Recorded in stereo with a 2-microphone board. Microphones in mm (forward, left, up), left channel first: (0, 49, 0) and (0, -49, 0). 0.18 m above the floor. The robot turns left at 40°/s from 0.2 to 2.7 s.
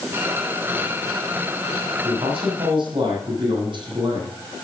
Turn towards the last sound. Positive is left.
turn(degrees=-55)  # may be behind; listen again after turning